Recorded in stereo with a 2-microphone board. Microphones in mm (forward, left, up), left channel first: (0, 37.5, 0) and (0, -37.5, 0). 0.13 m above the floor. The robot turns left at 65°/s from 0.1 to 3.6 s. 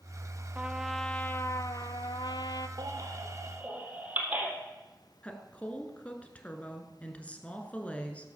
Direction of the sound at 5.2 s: 20° left (ahead or behind).